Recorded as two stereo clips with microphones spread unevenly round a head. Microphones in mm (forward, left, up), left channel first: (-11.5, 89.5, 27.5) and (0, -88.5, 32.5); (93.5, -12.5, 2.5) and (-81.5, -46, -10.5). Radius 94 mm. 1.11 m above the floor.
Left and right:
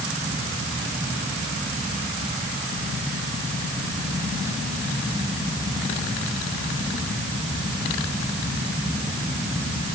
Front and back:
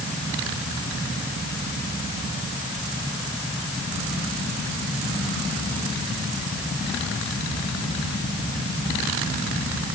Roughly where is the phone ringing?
No phone ringing in this recording.